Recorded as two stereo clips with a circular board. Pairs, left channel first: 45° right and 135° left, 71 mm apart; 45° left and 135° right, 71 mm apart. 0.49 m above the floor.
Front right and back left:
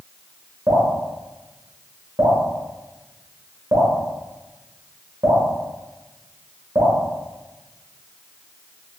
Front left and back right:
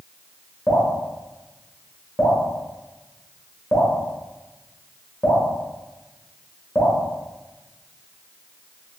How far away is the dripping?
About 1.0 m.